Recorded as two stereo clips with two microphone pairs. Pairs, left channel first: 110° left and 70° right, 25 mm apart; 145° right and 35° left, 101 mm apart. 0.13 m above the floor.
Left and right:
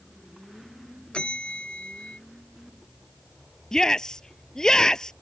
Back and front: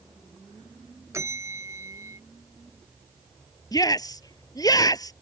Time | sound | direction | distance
1.1 | a bell | 85° left | ?
3.7 | a shout | 170° left | ?